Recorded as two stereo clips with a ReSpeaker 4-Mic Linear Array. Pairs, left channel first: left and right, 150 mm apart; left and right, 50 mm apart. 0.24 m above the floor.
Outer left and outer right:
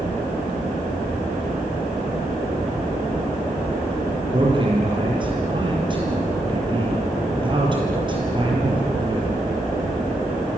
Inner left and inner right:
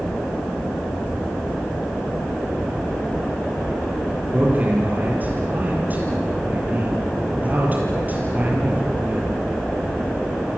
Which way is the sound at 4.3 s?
35° right (ahead or behind).